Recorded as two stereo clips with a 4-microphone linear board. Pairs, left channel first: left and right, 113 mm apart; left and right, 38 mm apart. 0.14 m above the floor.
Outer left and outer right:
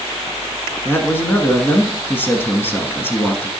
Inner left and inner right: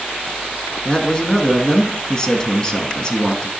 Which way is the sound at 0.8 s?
20° left (ahead or behind).